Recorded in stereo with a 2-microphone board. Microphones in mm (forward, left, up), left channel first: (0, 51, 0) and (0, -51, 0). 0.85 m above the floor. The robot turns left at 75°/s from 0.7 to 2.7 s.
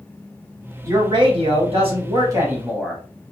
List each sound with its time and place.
0.8 s a man speaking: 30° right, 1.4 m; by 3.0 s 170° right, 1.4 m